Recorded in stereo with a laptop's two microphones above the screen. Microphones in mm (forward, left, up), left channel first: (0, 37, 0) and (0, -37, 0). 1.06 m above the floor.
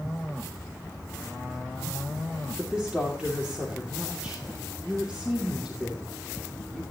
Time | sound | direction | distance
2.6 | a woman speaking | 15° right (ahead or behind) | 2.5 m